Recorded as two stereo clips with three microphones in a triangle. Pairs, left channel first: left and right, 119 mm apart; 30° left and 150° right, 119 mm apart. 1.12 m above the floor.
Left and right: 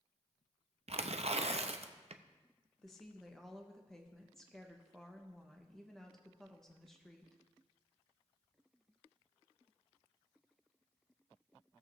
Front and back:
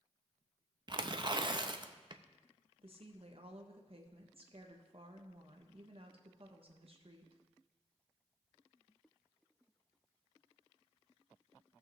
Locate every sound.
0.9 s tearing paper: 105° right, 0.5 m
2.8 s a woman speaking: 175° left, 1.0 m